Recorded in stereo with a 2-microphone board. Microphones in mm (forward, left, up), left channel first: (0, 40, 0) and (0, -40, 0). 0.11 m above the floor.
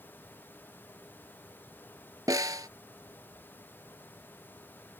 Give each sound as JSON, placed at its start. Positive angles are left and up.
{"t": 2.3, "sound": "a snare drum", "side_deg": -50}